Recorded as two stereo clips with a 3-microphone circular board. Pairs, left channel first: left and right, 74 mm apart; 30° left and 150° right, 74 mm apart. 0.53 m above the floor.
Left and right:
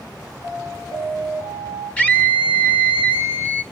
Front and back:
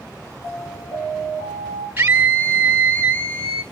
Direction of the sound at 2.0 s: 160° left.